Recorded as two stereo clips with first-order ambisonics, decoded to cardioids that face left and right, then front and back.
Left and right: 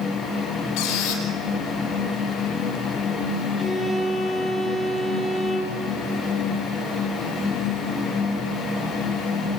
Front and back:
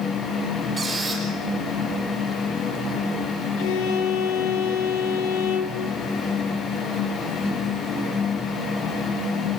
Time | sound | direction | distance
0.8 | a squeak | 105° left | 5.5 m
3.6 | a violin | 5° left | 3.5 m